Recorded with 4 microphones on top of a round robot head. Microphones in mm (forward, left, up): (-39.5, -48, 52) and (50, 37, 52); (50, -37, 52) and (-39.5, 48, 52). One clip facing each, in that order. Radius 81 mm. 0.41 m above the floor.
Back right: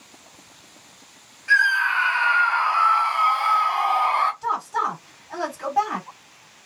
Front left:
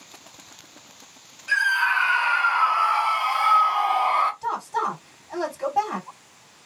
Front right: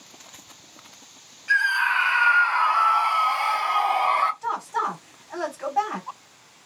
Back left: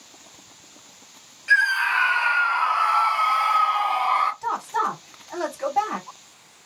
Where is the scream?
125° left, 1.2 m; by 4.3 s 40° right, 1.3 m.